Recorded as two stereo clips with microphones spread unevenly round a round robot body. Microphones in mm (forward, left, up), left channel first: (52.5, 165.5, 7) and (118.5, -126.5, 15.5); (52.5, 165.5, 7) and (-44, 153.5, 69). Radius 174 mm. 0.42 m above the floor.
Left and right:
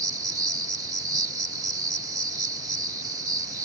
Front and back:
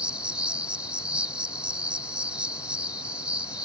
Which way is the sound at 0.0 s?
10° right.